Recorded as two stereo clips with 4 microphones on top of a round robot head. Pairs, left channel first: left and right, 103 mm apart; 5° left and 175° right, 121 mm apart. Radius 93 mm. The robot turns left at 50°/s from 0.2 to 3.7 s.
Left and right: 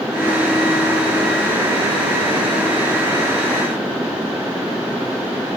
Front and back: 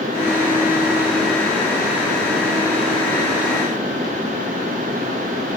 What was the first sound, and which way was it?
Only background noise.